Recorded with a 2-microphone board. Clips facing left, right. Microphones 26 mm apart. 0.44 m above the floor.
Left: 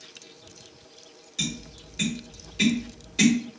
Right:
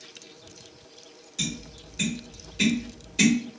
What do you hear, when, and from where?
1.4 s tapping: 20° left (ahead or behind), 1.5 m